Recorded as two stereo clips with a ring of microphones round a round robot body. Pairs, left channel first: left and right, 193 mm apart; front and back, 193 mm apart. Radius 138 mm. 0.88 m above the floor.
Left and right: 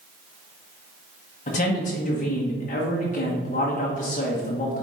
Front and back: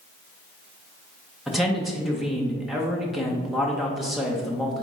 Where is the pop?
No pop in this recording.